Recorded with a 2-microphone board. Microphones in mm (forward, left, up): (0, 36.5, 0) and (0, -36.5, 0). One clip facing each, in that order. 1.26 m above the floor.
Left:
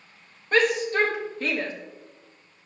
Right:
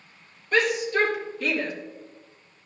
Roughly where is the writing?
No writing in this recording.